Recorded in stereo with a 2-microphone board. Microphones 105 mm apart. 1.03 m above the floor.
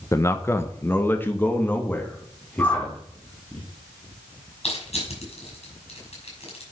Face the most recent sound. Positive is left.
turn(degrees=85)